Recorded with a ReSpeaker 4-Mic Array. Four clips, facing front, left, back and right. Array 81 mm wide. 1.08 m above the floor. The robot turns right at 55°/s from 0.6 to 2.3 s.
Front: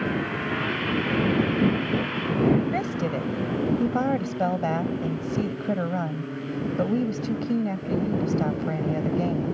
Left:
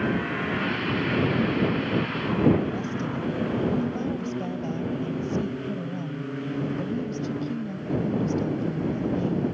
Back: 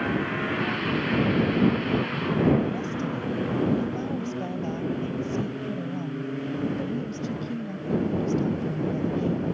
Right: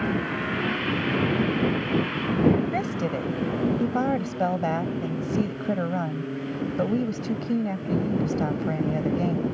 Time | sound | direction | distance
2.7 | a woman speaking | 50° right | ?